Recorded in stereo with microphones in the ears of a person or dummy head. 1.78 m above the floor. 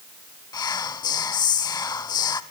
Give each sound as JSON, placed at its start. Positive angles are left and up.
{"t": 0.5, "sound": "whispering", "side_deg": 20, "distance_m": 0.8}